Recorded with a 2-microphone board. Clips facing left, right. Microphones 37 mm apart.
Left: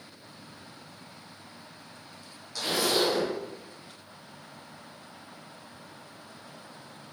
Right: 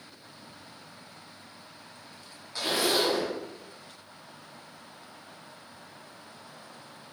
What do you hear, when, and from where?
2.5 s a zipper: 20° right (ahead or behind), 0.7 m